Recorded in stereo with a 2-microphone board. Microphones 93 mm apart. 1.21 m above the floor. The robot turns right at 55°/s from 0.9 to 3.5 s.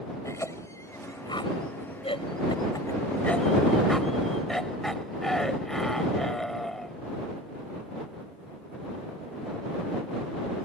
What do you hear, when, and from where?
0.2 s a cough: 35° left (ahead or behind); by 7.0 s 5° left (ahead or behind)